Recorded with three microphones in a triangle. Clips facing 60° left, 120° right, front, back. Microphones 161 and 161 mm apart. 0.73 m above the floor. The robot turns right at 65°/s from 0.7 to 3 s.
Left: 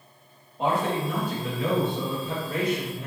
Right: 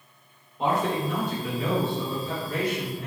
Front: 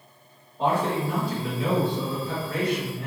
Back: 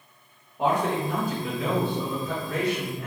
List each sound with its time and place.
0.6 s a man speaking: 105° left, 1.4 m; by 3.1 s 105° right, 1.4 m